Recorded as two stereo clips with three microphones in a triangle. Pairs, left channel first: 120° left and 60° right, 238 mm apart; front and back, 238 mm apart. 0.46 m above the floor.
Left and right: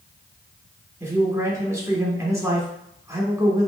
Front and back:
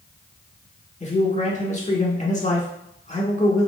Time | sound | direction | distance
1.0 | a man speaking | 5° left | 1.1 m